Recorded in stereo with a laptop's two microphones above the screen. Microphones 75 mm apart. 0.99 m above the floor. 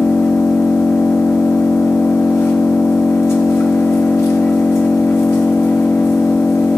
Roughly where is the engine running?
Left.